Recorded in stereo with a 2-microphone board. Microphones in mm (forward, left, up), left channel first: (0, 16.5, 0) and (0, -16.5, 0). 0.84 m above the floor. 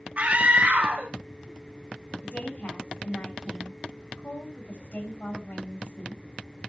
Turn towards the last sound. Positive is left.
turn(degrees=55)  # may be behind; listen again after turning